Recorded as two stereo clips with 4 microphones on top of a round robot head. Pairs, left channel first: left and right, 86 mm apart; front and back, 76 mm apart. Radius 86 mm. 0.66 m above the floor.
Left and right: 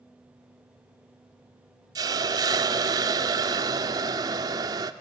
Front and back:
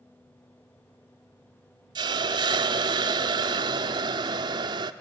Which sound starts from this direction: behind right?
A hiss, at 1.9 s.